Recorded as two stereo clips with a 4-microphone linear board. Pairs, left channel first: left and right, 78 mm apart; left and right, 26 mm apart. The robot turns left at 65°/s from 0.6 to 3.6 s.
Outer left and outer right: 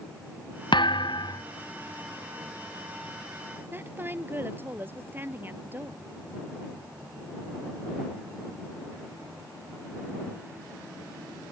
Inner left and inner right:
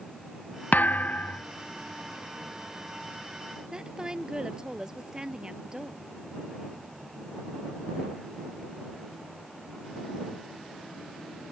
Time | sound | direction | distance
0.7 | a thud | 100° left | ?
3.7 | a woman speaking | 25° right (ahead or behind) | ?